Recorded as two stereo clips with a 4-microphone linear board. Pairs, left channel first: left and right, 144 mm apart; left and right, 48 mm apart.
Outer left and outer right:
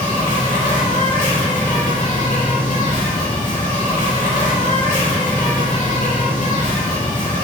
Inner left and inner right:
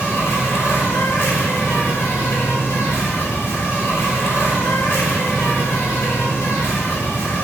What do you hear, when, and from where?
0.0 s an insect: 60° left (ahead or behind), 1.2 m